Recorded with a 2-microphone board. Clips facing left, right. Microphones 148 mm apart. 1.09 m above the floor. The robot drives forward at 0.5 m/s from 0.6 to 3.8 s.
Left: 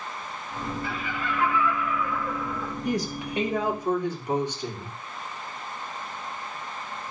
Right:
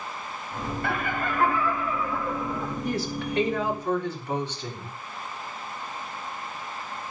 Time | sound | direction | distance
0.8 | laughter | 65° right (ahead or behind) | 0.6 m
2.9 | a woman speaking | 15° left (ahead or behind) | 2.5 m